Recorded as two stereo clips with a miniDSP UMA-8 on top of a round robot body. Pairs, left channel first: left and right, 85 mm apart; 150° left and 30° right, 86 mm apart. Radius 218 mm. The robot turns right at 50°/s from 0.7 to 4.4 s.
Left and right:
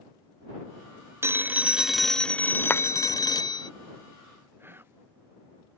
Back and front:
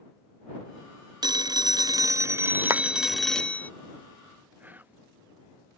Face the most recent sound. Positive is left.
turn(degrees=-70)